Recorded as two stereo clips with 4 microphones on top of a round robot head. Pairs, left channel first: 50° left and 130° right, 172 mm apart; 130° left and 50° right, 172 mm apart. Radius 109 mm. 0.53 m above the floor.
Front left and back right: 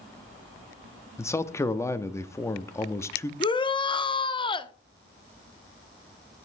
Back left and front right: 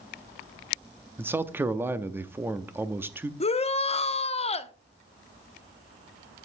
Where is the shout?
100° left, 0.8 m.